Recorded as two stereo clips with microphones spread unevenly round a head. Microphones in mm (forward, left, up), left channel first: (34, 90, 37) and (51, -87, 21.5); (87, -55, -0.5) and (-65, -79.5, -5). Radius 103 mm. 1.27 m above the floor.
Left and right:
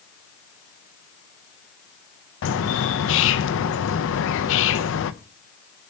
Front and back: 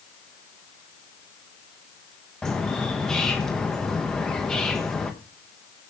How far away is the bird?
About 0.7 m.